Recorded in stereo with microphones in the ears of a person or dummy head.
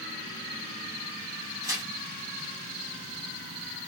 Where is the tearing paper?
20° right (ahead or behind), 1.0 m.